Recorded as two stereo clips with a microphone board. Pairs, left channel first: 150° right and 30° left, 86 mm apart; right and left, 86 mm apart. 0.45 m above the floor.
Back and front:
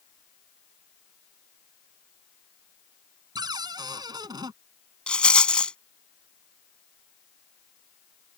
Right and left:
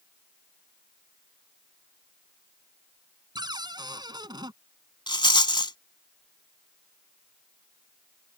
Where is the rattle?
75° right.